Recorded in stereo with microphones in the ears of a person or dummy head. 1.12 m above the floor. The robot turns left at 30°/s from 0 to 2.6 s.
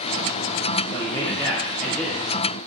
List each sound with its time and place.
0.9 s a man speaking: 45° left, 0.7 m; by 2.2 s 5° left, 0.7 m